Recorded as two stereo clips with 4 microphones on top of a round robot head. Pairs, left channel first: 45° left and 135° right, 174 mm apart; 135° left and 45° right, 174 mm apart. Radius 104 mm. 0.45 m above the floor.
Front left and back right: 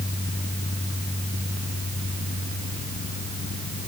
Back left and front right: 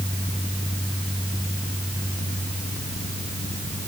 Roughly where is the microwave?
I don't hear a microwave.